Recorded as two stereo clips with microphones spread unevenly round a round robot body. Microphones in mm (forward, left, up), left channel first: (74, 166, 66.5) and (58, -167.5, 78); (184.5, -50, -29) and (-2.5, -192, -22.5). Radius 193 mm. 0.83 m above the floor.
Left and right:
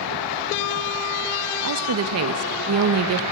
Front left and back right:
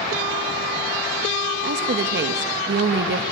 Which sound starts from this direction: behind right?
A woman speaking, at 1.6 s.